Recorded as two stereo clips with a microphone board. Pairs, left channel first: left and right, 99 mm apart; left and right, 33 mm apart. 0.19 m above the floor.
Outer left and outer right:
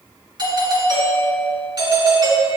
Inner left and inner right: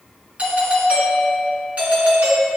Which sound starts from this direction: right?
A doorbell, at 0.4 s.